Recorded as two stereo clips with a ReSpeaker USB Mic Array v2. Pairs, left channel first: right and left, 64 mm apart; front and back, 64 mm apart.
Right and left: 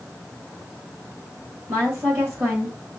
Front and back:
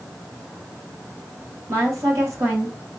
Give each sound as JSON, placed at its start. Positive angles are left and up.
{"t": 1.7, "sound": "a woman speaking", "azimuth_deg": 140, "distance_m": 2.0}